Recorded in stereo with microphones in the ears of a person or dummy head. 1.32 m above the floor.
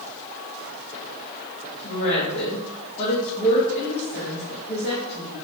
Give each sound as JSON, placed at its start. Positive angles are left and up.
{"t": 1.8, "sound": "a woman speaking", "side_deg": 35, "distance_m": 2.0}